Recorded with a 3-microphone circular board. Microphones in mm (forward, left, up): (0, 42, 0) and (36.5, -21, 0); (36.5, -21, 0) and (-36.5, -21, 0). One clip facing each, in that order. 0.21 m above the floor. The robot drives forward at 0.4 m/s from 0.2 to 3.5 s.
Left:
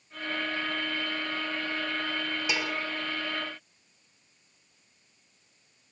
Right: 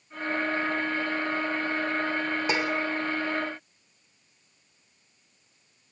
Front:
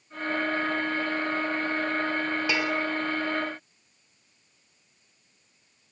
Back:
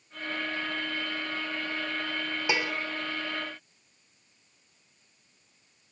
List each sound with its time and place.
2.5 s dishes clattering: 115° right, 2.5 m